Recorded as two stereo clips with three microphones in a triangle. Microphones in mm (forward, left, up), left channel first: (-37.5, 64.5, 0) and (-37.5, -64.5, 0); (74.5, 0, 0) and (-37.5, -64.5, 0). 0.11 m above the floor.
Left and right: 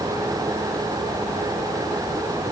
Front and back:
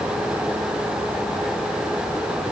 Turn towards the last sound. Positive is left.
No sound to turn to.